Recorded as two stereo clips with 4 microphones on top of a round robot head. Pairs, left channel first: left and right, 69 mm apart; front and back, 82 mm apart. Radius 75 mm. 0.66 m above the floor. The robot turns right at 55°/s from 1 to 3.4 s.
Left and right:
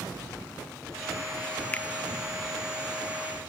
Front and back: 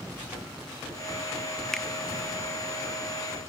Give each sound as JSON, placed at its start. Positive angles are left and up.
{"t": 1.7, "sound": "a finger snap", "azimuth_deg": 75}